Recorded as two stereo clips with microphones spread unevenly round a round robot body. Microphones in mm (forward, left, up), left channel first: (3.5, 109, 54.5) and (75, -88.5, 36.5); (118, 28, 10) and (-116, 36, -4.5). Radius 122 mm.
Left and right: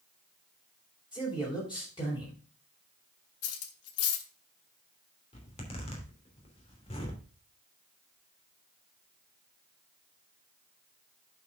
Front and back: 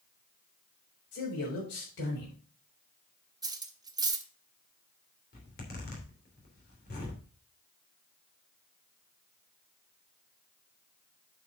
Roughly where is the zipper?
Ahead left.